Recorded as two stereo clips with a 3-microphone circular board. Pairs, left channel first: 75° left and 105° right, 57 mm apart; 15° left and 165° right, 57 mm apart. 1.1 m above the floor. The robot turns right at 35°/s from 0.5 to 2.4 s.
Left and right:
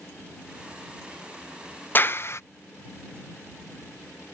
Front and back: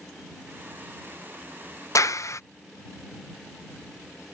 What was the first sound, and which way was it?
A clap, 20° left.